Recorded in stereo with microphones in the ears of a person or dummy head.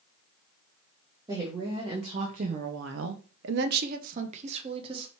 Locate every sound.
1.3 s a woman speaking: 20° right (ahead or behind), 1.2 m; by 5.1 s 30° right (ahead or behind), 1.3 m